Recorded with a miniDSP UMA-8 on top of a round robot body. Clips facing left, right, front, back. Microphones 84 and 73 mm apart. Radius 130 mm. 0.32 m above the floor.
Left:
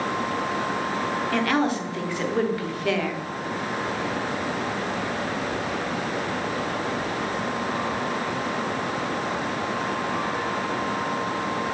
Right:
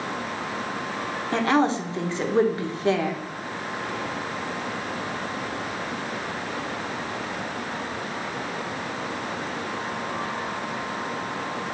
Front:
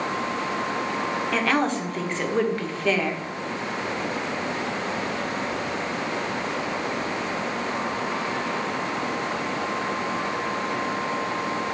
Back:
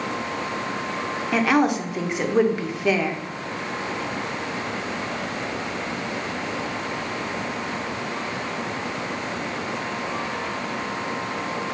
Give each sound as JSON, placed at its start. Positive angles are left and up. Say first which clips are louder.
{"t": 1.3, "sound": "a woman speaking", "louder": "right 3 dB, back 5 dB", "azimuth_deg": -115, "distance_m": 1.1}